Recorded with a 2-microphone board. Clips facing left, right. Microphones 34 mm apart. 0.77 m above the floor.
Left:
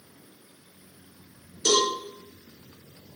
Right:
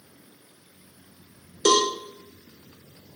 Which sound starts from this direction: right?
A cowbell, at 1.6 s.